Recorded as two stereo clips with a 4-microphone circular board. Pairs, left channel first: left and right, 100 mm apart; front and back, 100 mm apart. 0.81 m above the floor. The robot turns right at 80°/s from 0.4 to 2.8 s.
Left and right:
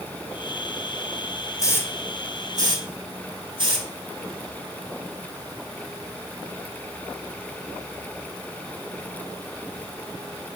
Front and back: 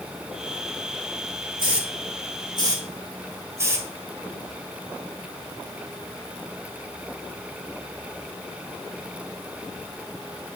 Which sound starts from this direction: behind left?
A hiss, at 1.6 s.